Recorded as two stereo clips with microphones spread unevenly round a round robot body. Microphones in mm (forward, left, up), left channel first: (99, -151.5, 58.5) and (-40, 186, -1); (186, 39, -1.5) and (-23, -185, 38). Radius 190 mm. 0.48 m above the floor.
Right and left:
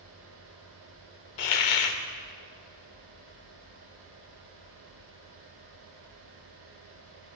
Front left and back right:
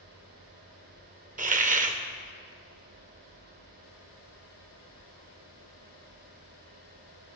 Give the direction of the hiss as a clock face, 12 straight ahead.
2 o'clock.